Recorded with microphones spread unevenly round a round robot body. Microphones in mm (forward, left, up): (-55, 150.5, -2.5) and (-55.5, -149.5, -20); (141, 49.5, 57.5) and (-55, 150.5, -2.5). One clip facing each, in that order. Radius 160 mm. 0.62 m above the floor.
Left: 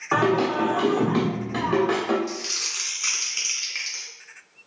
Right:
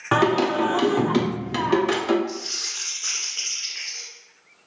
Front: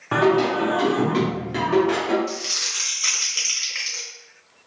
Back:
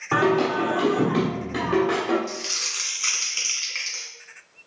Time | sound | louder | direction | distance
0.1 | singing | right 1 dB, front 2 dB | 120° right | 1.0 m
2.3 | crumpling | right 1 dB, front 3 dB | 95° left | 2 m